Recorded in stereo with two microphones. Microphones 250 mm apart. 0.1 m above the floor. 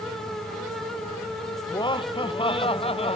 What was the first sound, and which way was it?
Laughter, 20° left (ahead or behind).